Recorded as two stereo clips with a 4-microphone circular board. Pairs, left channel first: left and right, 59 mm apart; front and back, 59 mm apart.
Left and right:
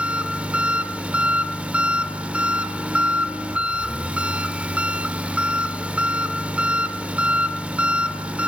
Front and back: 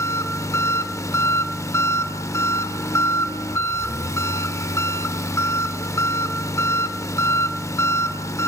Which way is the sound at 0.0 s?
25° right.